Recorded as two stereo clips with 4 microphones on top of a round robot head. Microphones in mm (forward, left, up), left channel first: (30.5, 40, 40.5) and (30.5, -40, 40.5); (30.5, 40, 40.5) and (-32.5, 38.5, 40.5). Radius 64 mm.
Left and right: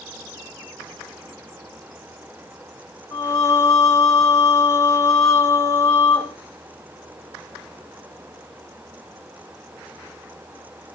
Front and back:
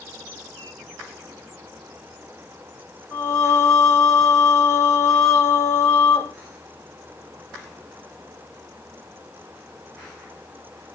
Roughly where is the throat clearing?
No throat clearing in this recording.